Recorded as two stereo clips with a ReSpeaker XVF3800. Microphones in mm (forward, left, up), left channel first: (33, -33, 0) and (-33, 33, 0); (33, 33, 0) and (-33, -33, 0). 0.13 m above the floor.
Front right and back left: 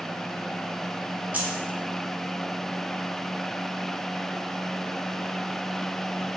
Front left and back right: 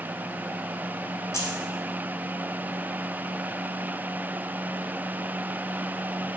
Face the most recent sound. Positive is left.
turn(degrees=70)